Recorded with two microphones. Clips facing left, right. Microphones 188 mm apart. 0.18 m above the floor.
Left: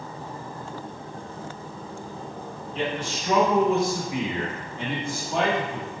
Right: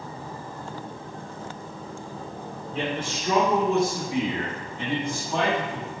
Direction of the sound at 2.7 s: 50° right (ahead or behind).